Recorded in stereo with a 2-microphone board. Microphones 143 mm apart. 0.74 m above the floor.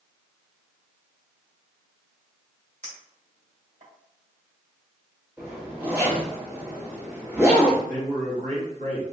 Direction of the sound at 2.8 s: 60° right (ahead or behind).